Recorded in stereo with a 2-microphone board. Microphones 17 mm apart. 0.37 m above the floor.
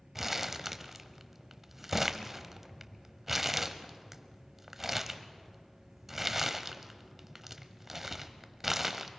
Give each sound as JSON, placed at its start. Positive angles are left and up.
{"t": 0.1, "sound": "crumpling", "side_deg": -15, "distance_m": 0.8}